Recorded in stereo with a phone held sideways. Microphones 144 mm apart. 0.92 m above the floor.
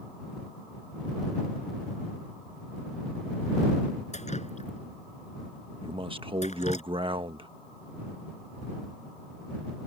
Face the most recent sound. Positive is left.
turn(degrees=-35)  # may be behind; listen again after turning